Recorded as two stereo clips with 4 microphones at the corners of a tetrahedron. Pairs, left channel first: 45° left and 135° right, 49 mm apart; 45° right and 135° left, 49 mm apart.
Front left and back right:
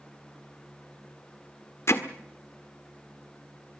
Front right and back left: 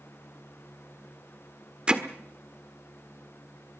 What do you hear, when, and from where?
1.9 s hammering: 65° left, 1.5 m